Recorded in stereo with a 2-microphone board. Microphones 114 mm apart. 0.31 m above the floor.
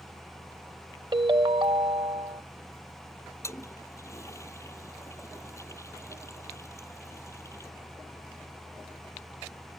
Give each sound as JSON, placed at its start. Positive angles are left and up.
{"t": 1.1, "sound": "a ringtone", "side_deg": -40}
{"t": 3.4, "sound": "a toilet flushing", "side_deg": 25}